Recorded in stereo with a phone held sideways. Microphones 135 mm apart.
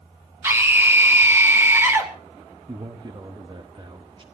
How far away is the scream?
About 2.5 m.